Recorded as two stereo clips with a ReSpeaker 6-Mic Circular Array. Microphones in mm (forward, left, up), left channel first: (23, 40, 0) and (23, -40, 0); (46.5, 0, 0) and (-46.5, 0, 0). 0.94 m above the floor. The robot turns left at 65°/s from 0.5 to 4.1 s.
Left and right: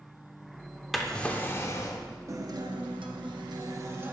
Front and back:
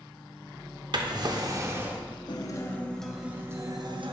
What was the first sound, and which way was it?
A drawer, straight behind.